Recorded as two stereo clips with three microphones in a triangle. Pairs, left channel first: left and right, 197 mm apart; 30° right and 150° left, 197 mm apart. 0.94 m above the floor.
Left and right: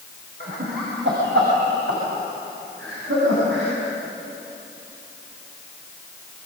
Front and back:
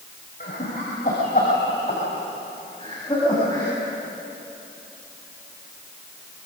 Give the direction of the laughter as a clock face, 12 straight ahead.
2 o'clock.